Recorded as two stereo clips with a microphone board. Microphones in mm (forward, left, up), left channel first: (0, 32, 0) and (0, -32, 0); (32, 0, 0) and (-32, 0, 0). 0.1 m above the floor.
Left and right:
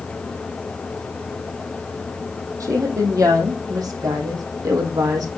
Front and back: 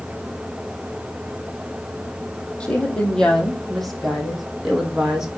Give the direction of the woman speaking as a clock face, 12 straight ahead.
2 o'clock.